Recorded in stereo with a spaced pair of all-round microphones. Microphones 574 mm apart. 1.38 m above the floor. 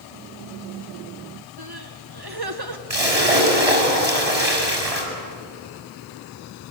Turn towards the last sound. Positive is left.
turn(degrees=-85)